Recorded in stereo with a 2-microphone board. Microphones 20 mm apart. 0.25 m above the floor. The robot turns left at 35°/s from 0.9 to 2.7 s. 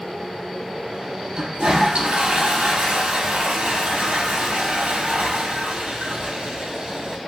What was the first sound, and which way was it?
A toilet flushing, 40° right.